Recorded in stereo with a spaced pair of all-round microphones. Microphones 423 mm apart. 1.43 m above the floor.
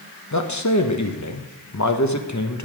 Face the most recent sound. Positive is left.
turn(degrees=40)  # may be behind; listen again after turning